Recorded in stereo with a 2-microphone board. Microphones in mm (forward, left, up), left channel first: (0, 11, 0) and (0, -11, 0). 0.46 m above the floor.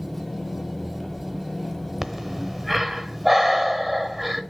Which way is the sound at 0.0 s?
10° left (ahead or behind).